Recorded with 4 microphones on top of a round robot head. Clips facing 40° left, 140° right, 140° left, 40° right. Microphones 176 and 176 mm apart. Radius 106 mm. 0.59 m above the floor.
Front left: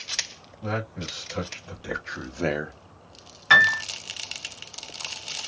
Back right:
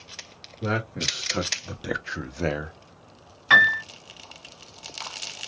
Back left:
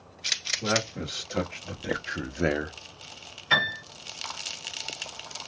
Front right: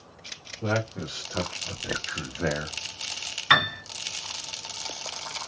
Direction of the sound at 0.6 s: 140° right.